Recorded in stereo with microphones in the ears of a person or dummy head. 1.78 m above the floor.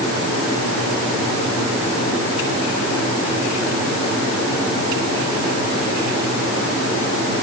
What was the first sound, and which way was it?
Only background noise.